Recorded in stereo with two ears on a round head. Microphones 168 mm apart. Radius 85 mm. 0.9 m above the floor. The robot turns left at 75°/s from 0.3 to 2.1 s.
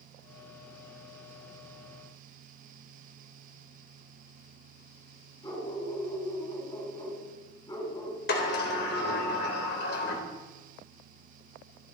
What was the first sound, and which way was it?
A dog barking, 20° left (ahead or behind).